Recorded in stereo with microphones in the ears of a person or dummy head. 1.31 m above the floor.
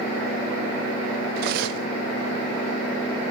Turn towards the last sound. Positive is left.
turn(degrees=-60)  # may be behind; listen again after turning